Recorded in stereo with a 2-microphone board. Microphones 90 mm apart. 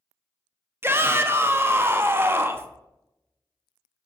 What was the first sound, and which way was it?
A shout, 30° right (ahead or behind).